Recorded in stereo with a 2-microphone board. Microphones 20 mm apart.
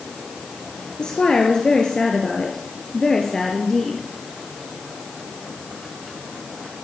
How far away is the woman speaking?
About 2.5 m.